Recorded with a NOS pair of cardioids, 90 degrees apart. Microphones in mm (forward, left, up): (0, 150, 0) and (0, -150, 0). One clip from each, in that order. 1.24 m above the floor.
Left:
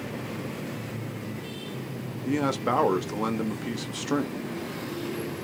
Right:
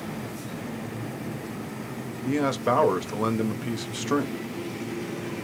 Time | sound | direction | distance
2.2 | a man speaking | 5° right | 0.6 m